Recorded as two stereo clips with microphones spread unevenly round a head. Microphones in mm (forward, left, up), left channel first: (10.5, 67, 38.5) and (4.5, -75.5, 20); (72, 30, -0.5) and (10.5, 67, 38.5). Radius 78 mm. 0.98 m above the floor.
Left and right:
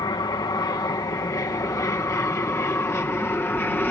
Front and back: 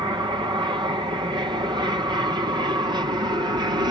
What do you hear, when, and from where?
0.0 s an aircraft: 135° left; by 3.9 s 165° left